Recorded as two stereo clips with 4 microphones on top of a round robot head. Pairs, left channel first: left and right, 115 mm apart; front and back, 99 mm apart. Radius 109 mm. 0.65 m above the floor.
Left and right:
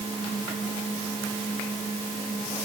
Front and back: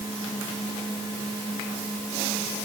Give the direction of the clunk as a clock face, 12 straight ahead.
No clunk in this recording.